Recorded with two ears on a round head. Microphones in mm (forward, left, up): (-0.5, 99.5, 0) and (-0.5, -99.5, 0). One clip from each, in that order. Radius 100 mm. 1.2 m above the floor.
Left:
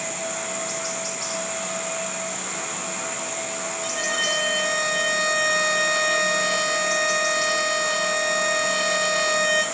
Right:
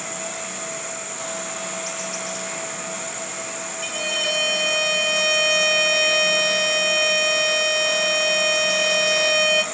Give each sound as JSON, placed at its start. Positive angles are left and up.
{"t": 3.8, "sound": "a violin", "side_deg": -35, "distance_m": 3.0}